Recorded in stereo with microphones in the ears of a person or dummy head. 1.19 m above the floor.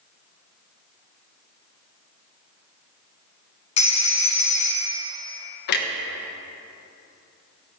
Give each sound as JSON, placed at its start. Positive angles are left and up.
{"t": 3.8, "sound": "a phone ringing", "side_deg": 35, "distance_m": 1.1}
{"t": 5.7, "sound": "a clunk", "side_deg": 50, "distance_m": 1.2}